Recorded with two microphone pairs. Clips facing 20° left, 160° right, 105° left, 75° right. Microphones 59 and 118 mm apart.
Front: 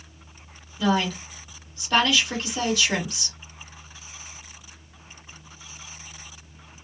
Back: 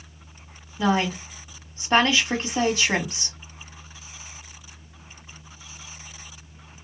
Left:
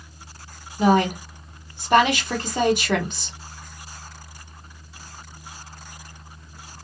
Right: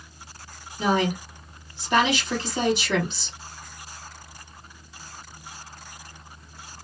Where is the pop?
No pop in this recording.